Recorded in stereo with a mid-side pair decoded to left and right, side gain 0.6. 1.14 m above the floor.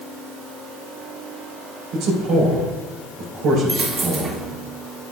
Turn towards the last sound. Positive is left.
turn(degrees=-30)